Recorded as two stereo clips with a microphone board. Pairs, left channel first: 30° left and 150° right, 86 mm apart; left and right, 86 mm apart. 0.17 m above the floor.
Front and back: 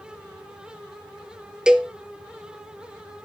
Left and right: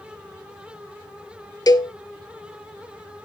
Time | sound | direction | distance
1.7 | a cowbell | 130° left | 0.7 m